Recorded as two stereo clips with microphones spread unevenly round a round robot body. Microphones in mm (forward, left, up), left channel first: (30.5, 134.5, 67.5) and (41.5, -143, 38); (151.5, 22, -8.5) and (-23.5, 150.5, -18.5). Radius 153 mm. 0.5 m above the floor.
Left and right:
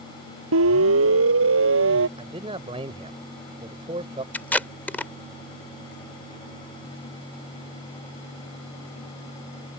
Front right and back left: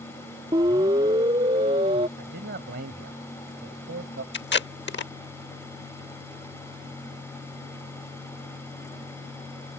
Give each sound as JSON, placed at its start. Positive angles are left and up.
{"t": 0.5, "sound": "a siren", "azimuth_deg": -135}
{"t": 2.2, "sound": "a man speaking", "azimuth_deg": -160}
{"t": 4.3, "sound": "tape being pulled", "azimuth_deg": 5}